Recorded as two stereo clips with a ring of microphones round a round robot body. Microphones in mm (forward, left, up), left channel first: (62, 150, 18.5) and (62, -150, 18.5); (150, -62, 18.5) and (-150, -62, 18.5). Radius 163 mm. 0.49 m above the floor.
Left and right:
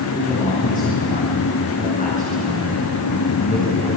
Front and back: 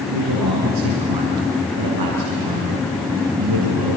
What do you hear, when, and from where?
0.1 s a man speaking: 155° left, 4.5 m